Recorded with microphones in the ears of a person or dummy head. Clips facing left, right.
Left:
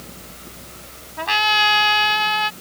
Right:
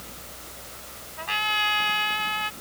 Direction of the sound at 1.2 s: 70° left (ahead or behind).